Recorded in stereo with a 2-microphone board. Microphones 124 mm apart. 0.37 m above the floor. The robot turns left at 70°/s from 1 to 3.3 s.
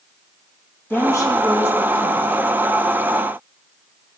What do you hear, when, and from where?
0.9 s a woman speaking: 160° left, 2 m; by 2.3 s 70° left, 2 m